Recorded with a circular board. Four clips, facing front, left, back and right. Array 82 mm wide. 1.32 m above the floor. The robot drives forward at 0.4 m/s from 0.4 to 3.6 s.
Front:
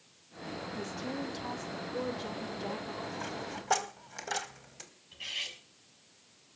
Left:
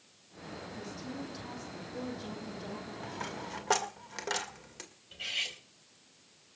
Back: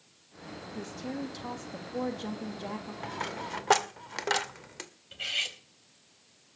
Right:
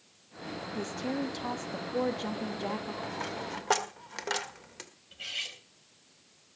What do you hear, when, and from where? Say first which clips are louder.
0.8 s a woman speaking: right 10 dB, back 2 dB; 100° right, 2 m; by 2.9 s 120° right, 2.5 m
3.0 s a dropped coin: right 4 dB, back 2 dB; 170° right, 1.6 m
5.1 s cutlery clinking: left 2 dB, back 6 dB; straight behind, 4 m